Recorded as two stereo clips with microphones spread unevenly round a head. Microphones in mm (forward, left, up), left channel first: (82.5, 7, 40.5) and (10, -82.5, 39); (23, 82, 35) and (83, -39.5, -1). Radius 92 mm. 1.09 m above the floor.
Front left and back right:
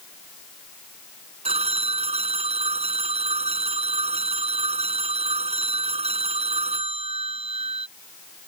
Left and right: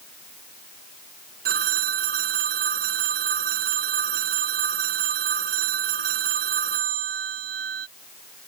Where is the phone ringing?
95° right.